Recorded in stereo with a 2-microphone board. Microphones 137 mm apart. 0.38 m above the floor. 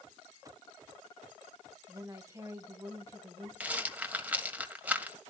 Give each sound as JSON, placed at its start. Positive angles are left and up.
{"t": 1.9, "sound": "a woman speaking", "side_deg": -20, "distance_m": 1.9}
{"t": 3.6, "sound": "a rattle", "side_deg": -10, "distance_m": 1.7}